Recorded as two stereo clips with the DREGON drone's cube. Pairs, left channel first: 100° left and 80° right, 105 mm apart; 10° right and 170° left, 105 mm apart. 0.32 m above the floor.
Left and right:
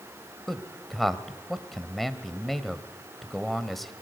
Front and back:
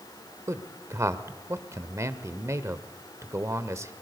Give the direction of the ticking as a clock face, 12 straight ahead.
I don't hear ticking.